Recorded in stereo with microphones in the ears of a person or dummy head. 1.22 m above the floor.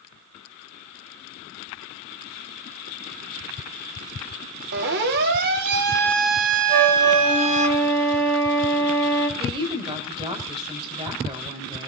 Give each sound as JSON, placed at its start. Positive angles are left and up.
{"t": 4.7, "sound": "a siren", "side_deg": -50, "distance_m": 4.5}
{"t": 6.7, "sound": "a flute", "side_deg": -20, "distance_m": 5.0}
{"t": 9.4, "sound": "a woman speaking", "side_deg": -20, "distance_m": 5.0}